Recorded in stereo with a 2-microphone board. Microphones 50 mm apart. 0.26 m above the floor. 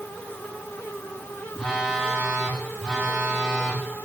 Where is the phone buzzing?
10° right (ahead or behind), 6 m.